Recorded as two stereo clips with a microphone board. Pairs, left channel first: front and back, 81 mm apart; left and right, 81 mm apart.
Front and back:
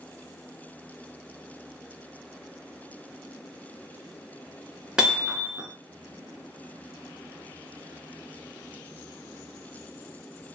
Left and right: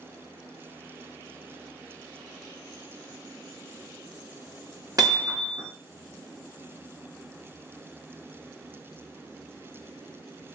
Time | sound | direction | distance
5.0 | hammering | 105° right | 1.6 m